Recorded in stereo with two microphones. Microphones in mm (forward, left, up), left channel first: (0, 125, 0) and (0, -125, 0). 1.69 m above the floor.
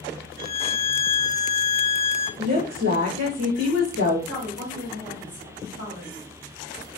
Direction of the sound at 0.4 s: 20° left (ahead or behind).